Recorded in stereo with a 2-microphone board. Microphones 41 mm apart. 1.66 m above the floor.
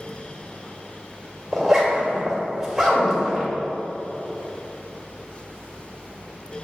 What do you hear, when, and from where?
1.5 s a zipper: 5° right (ahead or behind), 2 m